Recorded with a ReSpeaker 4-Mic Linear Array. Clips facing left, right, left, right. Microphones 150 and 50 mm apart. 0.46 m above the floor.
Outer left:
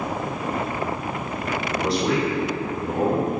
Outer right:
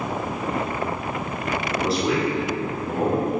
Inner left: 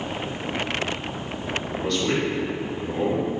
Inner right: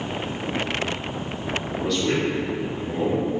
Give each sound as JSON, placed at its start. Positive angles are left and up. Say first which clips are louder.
{"t": 1.7, "sound": "a man speaking", "louder": "even, inner right 1 dB", "side_deg": 0, "distance_m": 1.5}